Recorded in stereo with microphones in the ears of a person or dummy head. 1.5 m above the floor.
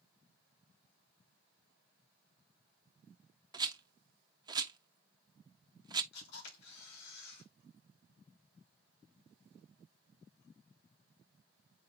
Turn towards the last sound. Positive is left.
turn(degrees=65)  # may be behind; listen again after turning